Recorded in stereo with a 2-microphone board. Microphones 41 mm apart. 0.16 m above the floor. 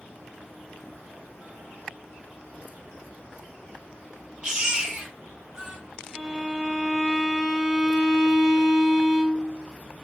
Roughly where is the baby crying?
Right.